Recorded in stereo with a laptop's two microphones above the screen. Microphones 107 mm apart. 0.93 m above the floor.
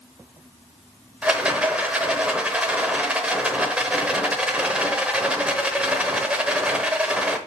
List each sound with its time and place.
1.2 s a rattle: 10° right (ahead or behind), 0.9 m